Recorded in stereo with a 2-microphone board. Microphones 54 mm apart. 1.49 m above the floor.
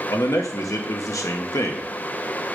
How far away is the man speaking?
About 1.3 m.